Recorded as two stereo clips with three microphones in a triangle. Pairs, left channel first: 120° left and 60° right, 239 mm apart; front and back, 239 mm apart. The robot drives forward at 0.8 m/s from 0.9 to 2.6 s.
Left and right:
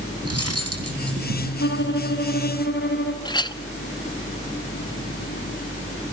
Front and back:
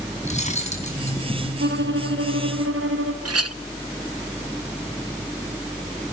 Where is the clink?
170° right, 0.7 m.